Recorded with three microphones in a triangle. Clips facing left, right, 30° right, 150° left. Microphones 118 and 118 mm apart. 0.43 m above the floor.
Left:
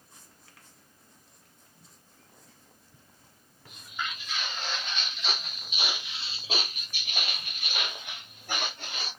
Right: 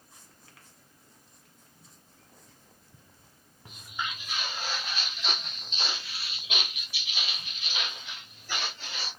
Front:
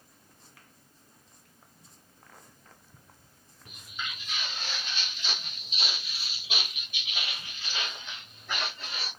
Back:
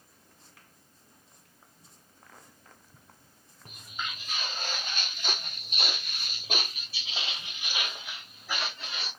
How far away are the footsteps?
About 1.7 m.